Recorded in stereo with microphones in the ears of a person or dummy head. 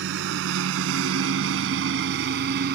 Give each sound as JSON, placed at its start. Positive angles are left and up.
{"t": 0.0, "sound": "a lawn mower", "side_deg": -65}